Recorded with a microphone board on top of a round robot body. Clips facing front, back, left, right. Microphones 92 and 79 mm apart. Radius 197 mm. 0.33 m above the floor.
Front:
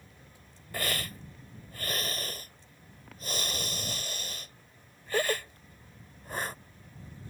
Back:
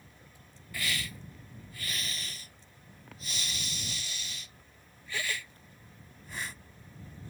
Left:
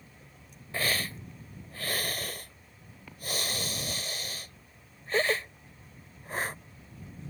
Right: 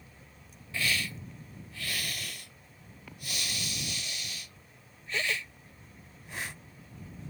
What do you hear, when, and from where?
0.7 s a hiss: 45° left